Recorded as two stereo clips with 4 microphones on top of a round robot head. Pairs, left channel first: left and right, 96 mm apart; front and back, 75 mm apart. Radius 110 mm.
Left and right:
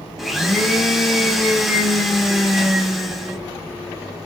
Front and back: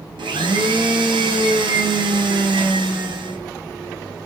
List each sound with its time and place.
0.2 s a blender: straight behind, 1.0 m